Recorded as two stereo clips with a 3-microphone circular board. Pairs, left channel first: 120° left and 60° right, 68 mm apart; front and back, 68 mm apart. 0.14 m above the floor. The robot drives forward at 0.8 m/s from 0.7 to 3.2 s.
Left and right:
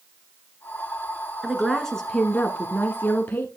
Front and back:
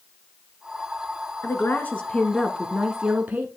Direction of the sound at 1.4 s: 25° left.